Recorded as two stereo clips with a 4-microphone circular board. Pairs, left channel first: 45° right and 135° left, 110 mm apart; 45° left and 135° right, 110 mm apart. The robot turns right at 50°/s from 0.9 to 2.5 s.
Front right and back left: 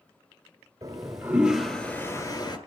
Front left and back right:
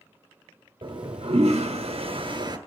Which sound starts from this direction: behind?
A toilet flushing, at 0.8 s.